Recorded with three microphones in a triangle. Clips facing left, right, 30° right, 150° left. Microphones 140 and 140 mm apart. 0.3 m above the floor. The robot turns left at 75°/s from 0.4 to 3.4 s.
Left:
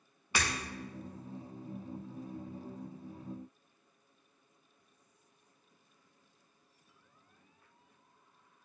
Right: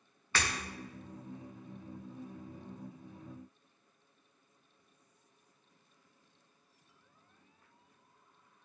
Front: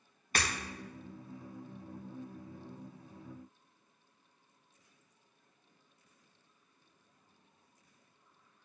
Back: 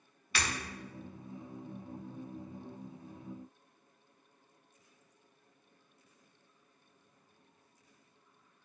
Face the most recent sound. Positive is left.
turn(degrees=150)